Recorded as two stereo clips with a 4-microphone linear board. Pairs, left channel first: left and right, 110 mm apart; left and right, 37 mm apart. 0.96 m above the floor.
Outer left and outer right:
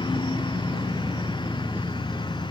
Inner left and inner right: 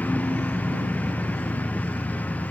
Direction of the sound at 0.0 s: 45° left (ahead or behind).